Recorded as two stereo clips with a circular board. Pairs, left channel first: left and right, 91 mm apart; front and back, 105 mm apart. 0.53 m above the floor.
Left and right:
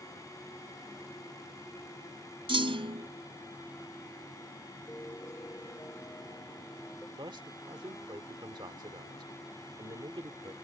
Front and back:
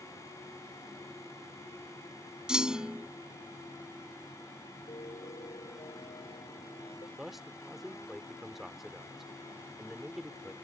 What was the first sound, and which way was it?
A clunk, 95° right.